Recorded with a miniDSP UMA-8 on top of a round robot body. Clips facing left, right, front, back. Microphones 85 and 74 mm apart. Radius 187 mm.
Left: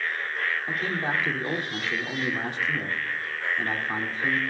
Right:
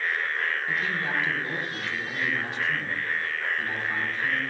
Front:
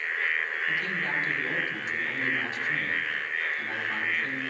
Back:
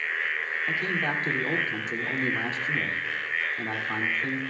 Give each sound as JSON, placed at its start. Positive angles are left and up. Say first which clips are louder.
{"t": 0.7, "sound": "a man speaking", "louder": "even, back 2 dB", "azimuth_deg": 135, "distance_m": 2.5}